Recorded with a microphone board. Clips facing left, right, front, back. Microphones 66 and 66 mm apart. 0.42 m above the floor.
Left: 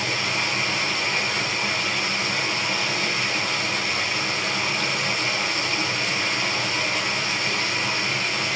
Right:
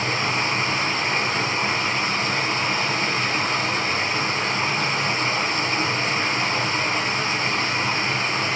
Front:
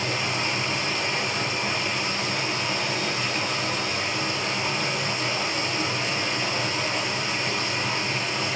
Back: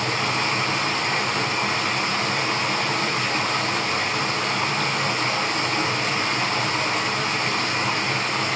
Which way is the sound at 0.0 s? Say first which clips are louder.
Right 3 dB, back 4 dB; 145° right.